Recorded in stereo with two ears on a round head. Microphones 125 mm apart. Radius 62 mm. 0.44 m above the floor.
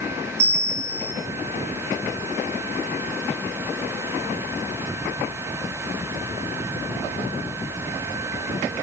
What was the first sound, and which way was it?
A bell, 20° right (ahead or behind).